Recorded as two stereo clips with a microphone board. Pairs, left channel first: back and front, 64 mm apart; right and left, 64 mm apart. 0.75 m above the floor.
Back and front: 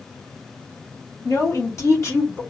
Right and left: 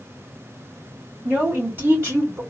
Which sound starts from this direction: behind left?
A woman speaking, at 1.2 s.